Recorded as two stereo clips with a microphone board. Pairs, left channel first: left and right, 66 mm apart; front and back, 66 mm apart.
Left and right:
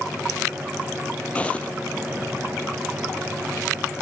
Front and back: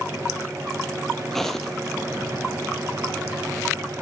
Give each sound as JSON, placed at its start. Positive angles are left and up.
{"t": 1.3, "sound": "footsteps", "azimuth_deg": 80, "distance_m": 1.2}